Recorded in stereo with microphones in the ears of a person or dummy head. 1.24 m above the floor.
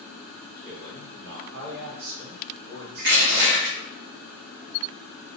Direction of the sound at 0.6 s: 70° right (ahead or behind).